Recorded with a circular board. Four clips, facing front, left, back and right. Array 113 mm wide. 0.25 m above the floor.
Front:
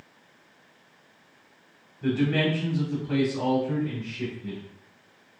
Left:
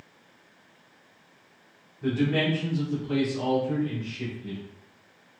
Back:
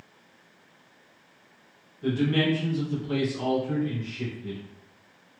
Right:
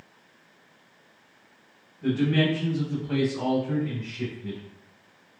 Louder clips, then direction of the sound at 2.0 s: Right 2 dB, even; 15° left.